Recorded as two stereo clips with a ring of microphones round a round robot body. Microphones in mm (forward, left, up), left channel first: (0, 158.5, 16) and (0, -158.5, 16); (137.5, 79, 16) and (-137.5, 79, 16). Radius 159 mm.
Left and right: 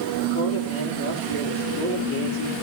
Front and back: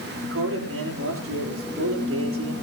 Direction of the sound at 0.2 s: 140° left.